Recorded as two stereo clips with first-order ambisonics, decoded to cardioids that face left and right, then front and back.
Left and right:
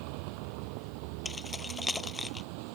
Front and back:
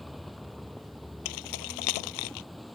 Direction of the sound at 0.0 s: 90° right.